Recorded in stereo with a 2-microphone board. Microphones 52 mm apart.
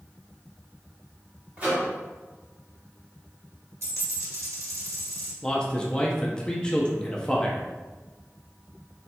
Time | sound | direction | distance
1.6 | a microwave | 25° right (ahead or behind) | 1.7 m
3.8 | a dropped coin | 70° right (ahead or behind) | 1.5 m
5.4 | a man speaking | 20° left (ahead or behind) | 0.5 m